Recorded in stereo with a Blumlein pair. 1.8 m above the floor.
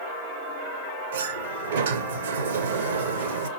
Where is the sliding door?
65° right, 0.7 m.